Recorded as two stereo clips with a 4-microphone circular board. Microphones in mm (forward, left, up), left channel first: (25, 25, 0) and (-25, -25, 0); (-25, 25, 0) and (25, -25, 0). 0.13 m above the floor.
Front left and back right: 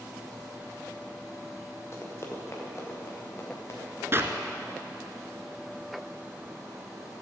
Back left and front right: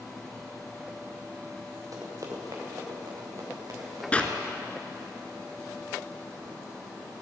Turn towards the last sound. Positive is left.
turn(degrees=-165)